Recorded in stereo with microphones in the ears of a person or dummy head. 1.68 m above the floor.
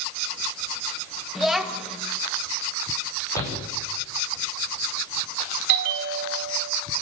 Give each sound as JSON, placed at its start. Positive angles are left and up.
{"t": 1.4, "sound": "a child speaking", "side_deg": 0, "distance_m": 2.0}
{"t": 3.4, "sound": "a shout", "side_deg": 20, "distance_m": 9.0}
{"t": 5.7, "sound": "a bell", "side_deg": -60, "distance_m": 1.7}